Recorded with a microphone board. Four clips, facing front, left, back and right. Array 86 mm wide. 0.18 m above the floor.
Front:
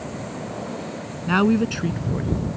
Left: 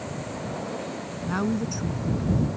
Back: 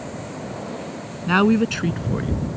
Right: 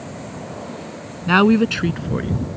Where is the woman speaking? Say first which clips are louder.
Right 13 dB, back 2 dB; 100° right; by 2.5 s 110° right.